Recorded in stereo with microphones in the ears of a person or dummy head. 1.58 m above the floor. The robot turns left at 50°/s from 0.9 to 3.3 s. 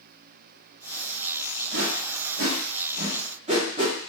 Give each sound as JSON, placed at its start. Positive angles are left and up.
{"t": 1.7, "sound": "a whoosh", "side_deg": -65, "distance_m": 1.2}